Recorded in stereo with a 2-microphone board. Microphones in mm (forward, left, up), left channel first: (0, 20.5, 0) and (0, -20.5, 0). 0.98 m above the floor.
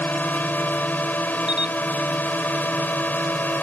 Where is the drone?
45° left (ahead or behind).